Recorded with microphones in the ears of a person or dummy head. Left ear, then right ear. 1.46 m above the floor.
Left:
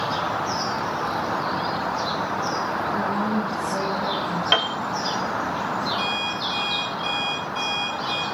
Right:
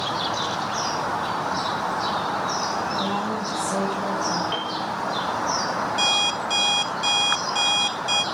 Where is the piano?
75° left (ahead or behind), 1.4 m.